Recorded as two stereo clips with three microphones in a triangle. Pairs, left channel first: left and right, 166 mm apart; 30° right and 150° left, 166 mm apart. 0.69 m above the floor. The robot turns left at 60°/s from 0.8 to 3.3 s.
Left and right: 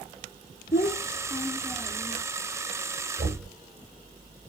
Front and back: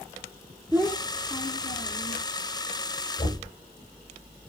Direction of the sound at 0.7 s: 75° left.